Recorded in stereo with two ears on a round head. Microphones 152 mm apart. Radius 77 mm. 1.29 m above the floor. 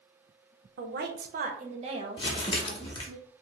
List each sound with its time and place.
0.8 s a woman speaking: 70° right (ahead or behind), 0.7 m; by 3.2 s 20° right (ahead or behind), 1.5 m
2.2 s crumpling: 30° left (ahead or behind), 0.9 m